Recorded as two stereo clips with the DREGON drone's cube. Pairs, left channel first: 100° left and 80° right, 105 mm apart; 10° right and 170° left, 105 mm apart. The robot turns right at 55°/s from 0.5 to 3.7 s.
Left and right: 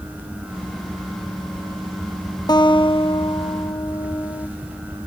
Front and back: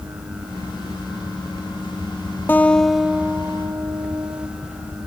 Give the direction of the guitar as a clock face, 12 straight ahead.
10 o'clock.